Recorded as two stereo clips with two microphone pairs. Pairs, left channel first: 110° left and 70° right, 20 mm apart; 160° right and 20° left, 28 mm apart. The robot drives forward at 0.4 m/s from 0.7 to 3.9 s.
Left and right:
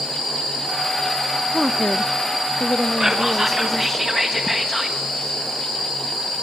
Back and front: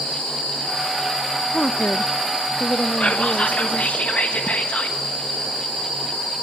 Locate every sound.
1.5 s a woman speaking: 155° right, 0.6 m; by 4.0 s 175° right, 1.4 m
3.0 s whispering: 135° right, 1.0 m; by 5.0 s 150° right, 1.2 m